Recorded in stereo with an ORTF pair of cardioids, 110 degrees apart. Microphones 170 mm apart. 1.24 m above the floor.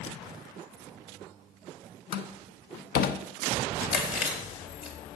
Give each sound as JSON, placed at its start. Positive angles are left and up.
{"t": 2.1, "sound": "a door slam", "azimuth_deg": 65, "distance_m": 1.0}
{"t": 3.9, "sound": "chewing", "azimuth_deg": 65, "distance_m": 3.5}